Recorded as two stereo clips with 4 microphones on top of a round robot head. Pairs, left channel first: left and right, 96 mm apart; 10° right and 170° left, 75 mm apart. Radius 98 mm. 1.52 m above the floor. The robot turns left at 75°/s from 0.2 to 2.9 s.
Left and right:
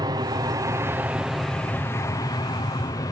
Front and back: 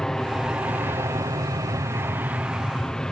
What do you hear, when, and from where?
0.0 s an aircraft: 90° right; by 3.1 s 65° left